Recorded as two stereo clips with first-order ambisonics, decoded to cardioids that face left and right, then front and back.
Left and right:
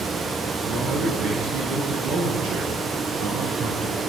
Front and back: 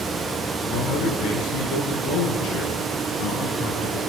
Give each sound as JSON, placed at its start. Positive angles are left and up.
{"t": 0.6, "sound": "a man speaking", "azimuth_deg": -35, "distance_m": 8.5}